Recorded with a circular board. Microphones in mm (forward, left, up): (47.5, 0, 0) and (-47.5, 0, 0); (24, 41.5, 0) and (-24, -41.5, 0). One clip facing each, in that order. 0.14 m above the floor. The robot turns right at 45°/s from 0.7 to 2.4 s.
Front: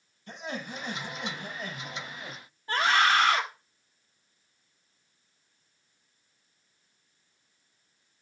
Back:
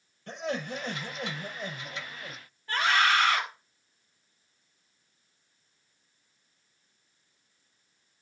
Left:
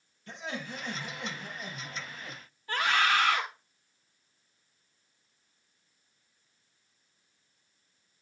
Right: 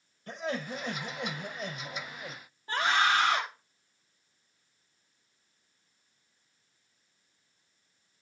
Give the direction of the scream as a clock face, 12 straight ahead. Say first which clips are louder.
Front 1 dB, right 1 dB; 2 o'clock.